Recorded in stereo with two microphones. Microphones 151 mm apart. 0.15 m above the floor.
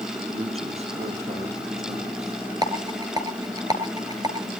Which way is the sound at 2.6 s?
25° right (ahead or behind).